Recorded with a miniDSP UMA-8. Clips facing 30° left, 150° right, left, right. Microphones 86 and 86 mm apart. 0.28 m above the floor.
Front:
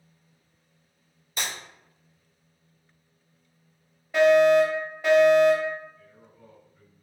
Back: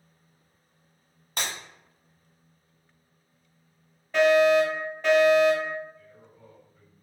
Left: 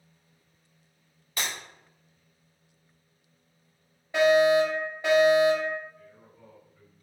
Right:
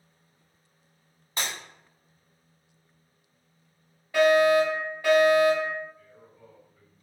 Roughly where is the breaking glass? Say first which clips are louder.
Even, even; behind right.